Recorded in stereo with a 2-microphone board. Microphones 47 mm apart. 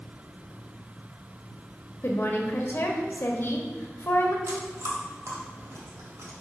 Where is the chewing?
75° right (ahead or behind), 2.5 m.